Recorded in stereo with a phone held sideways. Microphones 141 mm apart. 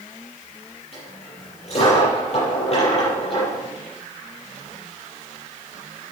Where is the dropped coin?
50° left (ahead or behind), 7.5 m.